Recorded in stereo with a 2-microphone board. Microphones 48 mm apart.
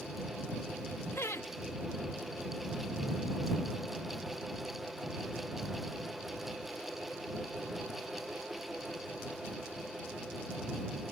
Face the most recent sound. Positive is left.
turn(degrees=80)